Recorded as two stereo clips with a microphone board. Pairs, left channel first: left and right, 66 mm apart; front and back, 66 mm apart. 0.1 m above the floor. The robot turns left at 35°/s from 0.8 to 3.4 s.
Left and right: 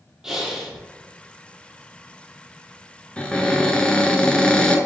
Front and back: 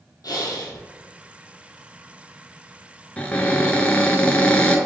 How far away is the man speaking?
No man speaking in this recording.